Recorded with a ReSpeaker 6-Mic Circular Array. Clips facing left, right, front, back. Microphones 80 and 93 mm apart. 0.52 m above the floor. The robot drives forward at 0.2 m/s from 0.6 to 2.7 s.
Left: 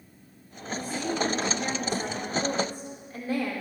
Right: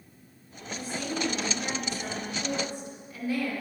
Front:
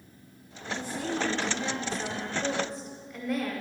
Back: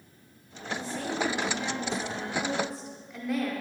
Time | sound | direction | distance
0.7 | a woman speaking | 65° left | 1.3 m